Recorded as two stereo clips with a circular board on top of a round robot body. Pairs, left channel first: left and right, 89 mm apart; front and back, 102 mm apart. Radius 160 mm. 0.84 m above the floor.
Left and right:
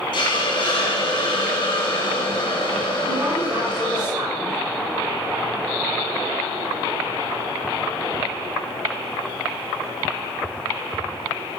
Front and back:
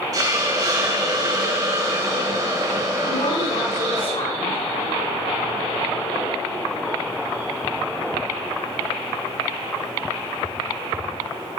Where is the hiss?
125° left, 5 m.